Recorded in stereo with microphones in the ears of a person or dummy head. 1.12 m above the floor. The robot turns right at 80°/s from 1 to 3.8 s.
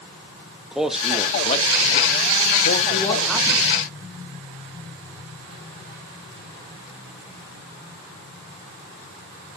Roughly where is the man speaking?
Centre.